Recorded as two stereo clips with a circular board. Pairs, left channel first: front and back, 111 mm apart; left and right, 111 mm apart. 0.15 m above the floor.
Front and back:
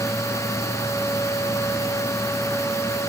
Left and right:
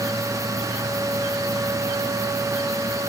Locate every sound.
Only background noise.